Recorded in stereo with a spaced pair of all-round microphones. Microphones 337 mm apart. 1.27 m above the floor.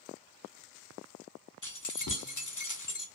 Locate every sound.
1.6 s keys jangling: 60° left (ahead or behind), 0.6 m